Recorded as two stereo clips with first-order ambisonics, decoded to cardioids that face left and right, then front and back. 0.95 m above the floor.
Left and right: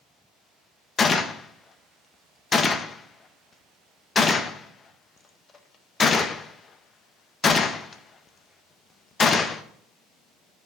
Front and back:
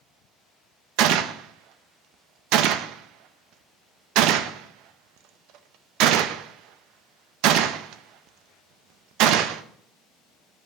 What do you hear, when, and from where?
1.0 s a gunshot: 160° left, 0.5 m